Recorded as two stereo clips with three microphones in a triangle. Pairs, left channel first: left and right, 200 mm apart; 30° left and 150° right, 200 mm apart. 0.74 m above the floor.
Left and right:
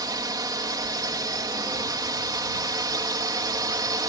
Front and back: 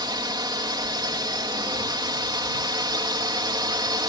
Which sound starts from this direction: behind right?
A drone, at 0.0 s.